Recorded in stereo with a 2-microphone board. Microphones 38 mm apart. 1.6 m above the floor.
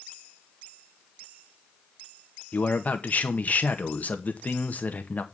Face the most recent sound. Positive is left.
turn(degrees=45)  # may be behind; listen again after turning